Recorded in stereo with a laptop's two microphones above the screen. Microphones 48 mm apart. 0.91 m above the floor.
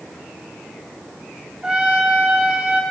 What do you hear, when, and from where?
1.6 s a trumpet: 20° right (ahead or behind), 1.2 m